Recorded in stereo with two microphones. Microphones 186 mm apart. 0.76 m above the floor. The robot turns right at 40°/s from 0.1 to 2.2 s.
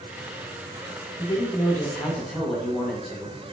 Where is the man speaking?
140° left, 0.7 m; by 3.5 s straight behind, 0.7 m.